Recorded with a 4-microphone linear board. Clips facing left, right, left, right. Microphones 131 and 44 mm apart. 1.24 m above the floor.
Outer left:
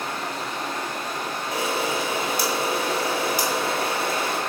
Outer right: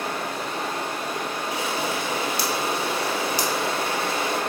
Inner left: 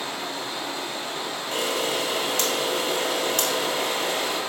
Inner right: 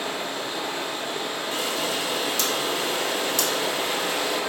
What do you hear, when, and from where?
0.0 s running water: 60° right (ahead or behind), 1.6 m
1.5 s a camera shutter: 50° left (ahead or behind), 1.0 m